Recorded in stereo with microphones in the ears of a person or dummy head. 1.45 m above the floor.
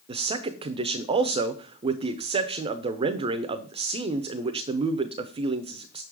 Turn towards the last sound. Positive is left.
turn(degrees=-35)  # may be behind; listen again after turning